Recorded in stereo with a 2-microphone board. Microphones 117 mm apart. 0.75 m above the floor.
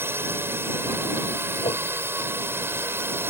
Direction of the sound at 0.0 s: 20° right (ahead or behind).